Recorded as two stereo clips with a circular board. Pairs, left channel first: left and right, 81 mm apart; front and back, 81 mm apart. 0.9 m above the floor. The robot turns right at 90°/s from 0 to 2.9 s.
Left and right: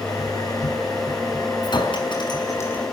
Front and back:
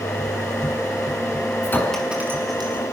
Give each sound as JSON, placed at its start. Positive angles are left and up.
{"t": 1.6, "sound": "a clink", "azimuth_deg": 55, "distance_m": 6.0}